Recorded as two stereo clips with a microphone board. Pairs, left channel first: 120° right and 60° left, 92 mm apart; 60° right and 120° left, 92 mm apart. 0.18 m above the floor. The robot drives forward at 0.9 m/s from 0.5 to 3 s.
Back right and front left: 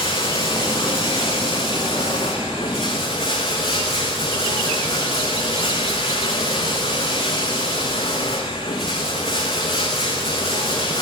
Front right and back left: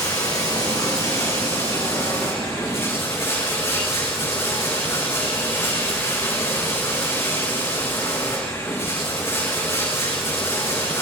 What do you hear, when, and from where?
0.0 s running water: 110° right, 8 m; by 11.0 s 125° right, 9 m